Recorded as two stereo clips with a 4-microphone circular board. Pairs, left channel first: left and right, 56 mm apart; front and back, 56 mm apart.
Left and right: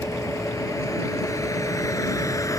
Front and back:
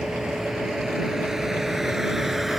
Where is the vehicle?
100° left; by 2.6 s 95° left.